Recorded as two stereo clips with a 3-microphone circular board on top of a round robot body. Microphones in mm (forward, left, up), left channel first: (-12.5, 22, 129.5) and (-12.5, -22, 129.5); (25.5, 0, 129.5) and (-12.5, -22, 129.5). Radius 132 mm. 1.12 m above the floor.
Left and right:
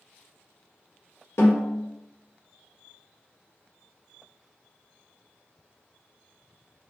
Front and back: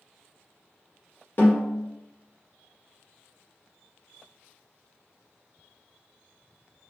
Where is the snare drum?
70° left, 1.6 m.